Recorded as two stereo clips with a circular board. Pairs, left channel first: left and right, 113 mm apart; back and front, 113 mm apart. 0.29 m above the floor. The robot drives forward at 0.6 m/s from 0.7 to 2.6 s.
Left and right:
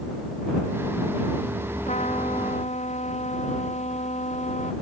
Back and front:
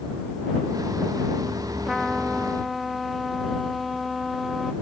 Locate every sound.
1.9 s a trumpet: 90° left